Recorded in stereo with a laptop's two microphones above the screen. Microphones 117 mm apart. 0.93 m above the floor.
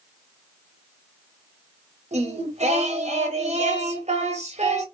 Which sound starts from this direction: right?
Singing, at 2.1 s.